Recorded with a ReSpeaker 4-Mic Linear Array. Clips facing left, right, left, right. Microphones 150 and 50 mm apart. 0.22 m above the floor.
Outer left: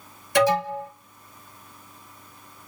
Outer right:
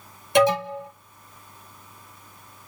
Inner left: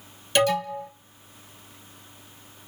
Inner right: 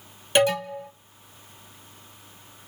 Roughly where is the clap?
No clap in this recording.